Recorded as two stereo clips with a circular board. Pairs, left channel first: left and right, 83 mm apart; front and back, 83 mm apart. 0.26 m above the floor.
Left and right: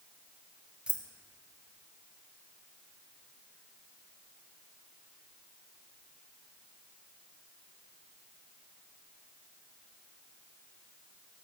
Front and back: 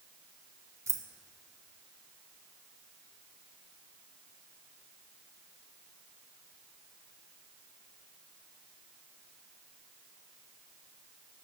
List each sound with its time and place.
0.9 s keys jangling: 160° right, 0.7 m